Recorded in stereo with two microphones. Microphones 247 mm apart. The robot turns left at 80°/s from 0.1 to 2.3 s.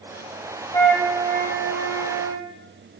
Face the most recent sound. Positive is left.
turn(degrees=-110)